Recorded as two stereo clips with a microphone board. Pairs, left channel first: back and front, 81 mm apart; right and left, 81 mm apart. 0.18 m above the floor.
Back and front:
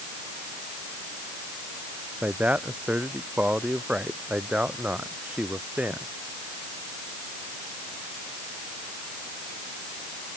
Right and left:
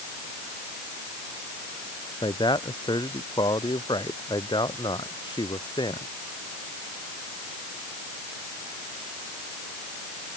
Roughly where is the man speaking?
Right.